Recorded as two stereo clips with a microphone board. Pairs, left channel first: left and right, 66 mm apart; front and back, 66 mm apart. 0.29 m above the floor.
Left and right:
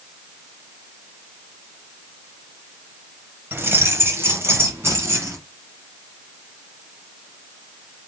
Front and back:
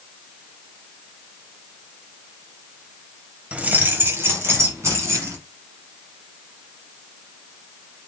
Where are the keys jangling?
120° right, 0.8 m; by 5.4 s 140° right, 2.5 m.